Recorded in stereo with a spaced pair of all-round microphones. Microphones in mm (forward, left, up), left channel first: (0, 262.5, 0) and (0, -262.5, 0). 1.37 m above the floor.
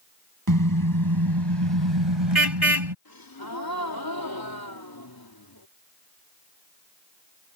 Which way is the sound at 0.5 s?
40° right (ahead or behind).